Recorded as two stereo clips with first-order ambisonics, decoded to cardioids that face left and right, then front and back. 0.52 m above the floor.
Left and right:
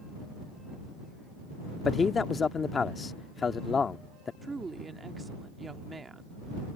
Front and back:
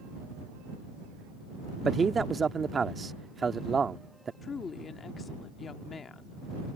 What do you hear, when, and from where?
1.9 s a man speaking: 130° left
4.4 s a woman speaking: 30° right